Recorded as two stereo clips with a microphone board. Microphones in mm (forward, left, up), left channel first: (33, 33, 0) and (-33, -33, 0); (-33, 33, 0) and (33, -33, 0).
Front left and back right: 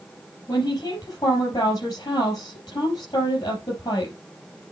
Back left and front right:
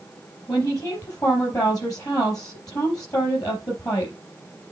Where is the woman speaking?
90° left, 4.5 m.